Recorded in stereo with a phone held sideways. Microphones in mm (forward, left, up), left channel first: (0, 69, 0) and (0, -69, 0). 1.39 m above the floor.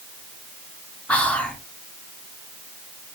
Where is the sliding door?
I don't hear a sliding door.